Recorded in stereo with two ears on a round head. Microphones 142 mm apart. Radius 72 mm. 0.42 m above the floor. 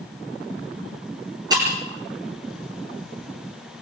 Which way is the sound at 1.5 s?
25° right (ahead or behind).